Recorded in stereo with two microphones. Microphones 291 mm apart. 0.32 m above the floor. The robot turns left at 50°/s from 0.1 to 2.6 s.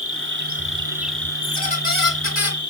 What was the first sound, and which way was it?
An insect, 130° right.